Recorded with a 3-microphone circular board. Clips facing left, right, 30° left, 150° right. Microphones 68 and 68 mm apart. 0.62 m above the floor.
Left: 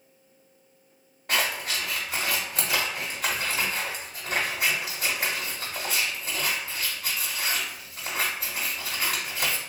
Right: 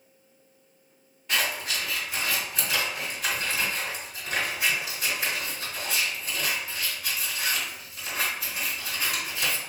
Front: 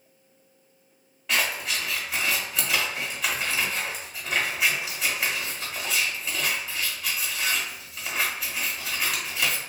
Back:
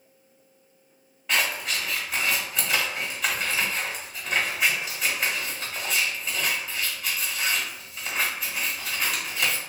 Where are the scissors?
120° left, 1.1 m.